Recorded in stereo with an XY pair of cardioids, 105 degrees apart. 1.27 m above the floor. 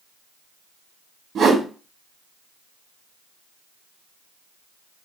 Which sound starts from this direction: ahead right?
A whoosh, at 1.4 s.